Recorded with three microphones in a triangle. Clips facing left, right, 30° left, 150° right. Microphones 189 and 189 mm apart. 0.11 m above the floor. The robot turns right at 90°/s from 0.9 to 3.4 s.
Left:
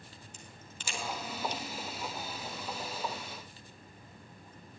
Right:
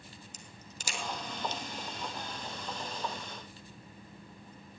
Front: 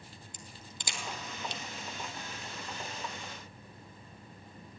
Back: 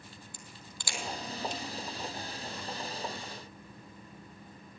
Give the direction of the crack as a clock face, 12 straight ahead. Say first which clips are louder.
Even, even; 1 o'clock.